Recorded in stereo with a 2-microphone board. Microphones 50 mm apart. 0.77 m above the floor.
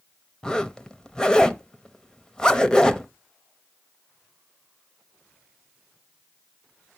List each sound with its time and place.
0.4 s a zipper: 15° left (ahead or behind), 0.6 m